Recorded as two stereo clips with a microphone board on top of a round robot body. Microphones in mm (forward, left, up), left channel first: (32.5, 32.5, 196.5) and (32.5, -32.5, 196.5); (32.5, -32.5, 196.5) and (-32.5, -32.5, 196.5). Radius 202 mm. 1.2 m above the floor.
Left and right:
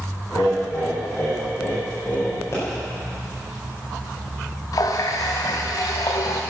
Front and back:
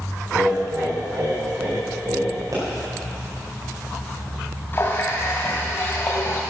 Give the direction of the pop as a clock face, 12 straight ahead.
7 o'clock.